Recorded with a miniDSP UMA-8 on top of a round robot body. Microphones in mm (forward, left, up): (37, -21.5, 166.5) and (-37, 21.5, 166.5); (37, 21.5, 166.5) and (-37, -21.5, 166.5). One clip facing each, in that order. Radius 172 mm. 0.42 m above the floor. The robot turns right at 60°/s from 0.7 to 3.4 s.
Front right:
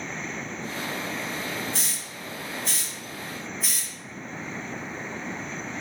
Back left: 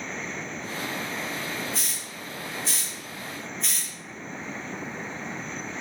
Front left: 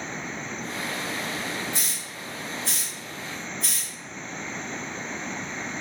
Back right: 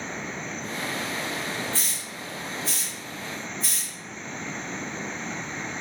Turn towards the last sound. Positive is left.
turn(degrees=55)